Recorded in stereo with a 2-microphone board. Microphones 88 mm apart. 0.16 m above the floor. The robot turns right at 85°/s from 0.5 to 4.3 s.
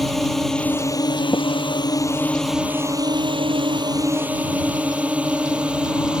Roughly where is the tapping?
Left.